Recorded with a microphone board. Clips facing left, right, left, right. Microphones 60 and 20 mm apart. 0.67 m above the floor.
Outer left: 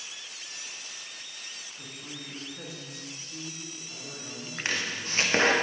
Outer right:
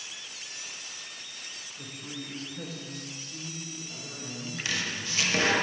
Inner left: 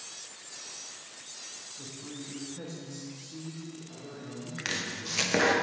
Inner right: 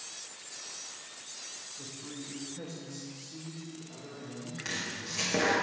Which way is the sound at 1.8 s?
5° right (ahead or behind).